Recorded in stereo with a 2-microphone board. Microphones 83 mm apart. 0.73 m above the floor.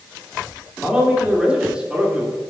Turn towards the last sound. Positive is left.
turn(degrees=-10)  # may be behind; listen again after turning